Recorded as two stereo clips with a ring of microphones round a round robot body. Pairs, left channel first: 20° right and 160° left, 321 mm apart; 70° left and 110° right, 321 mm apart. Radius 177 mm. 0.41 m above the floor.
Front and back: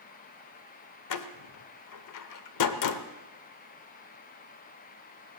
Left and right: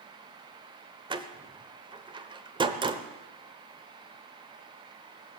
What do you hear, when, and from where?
1.1 s a door slam: 40° right, 0.9 m